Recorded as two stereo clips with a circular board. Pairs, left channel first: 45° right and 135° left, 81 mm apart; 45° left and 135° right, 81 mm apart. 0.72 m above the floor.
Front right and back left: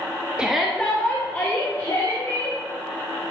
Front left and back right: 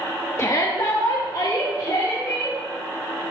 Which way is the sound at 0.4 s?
65° left.